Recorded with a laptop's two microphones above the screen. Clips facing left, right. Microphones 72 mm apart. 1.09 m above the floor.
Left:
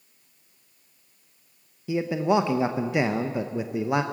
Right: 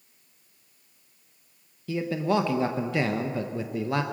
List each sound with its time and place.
1.9 s a man speaking: 15° left (ahead or behind), 0.8 m